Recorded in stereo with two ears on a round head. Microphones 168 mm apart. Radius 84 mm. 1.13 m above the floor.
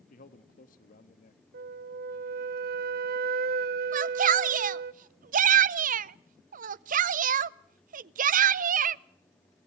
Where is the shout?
45° right (ahead or behind), 0.5 m.